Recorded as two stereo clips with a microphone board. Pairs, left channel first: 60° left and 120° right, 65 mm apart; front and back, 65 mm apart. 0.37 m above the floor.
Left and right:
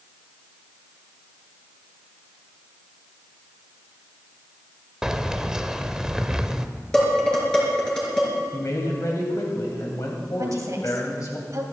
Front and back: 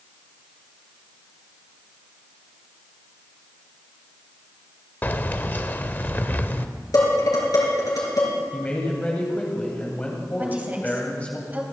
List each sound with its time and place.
5.0 s keys jangling: 45° right, 0.6 m
6.9 s dishes clattering: 20° right, 4.5 m
8.5 s a man speaking: 65° left, 2.5 m
10.4 s a woman speaking: 120° right, 2.5 m